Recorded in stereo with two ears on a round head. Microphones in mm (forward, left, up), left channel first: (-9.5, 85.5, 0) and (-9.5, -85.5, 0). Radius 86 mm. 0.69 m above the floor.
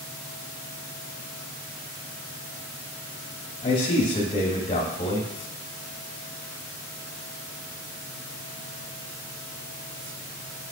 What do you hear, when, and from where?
3.6 s a man speaking: 30° left (ahead or behind), 1.2 m